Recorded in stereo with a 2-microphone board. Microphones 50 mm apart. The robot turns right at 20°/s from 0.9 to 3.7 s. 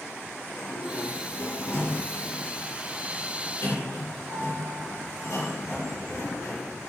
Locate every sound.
0.4 s a sliding door: 25° left, 5 m; by 6.7 s 80° left, 5 m